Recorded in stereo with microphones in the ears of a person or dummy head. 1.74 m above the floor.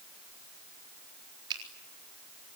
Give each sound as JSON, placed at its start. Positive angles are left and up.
{"t": 1.5, "sound": "a finger snap", "side_deg": -25, "distance_m": 4.0}